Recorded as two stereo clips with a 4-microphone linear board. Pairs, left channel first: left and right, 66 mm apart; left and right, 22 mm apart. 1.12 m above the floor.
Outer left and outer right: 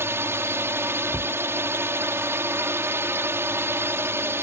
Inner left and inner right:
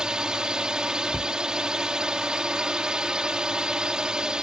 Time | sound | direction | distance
0.0 | a drone | 40° right (ahead or behind) | ?
1.1 | a cupboard door | 25° left (ahead or behind) | ?